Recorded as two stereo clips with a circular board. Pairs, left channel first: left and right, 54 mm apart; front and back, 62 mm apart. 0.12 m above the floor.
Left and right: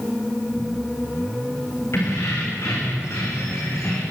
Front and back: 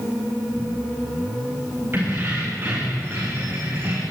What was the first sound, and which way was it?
Keys jangling, 125° left.